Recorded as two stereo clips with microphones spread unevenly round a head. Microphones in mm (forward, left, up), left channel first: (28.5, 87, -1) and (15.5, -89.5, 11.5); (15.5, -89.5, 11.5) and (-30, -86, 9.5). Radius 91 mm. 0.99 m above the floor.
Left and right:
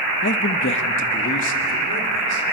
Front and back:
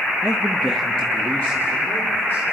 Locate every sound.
0.2 s a man speaking: 100° left, 0.8 m; by 2.4 s 65° left, 3.5 m